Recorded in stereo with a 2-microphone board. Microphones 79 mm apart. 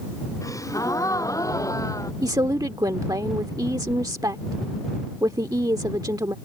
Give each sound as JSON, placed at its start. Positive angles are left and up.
{"t": 0.4, "sound": "a gasp", "side_deg": 45}
{"t": 2.2, "sound": "a woman speaking", "side_deg": -60}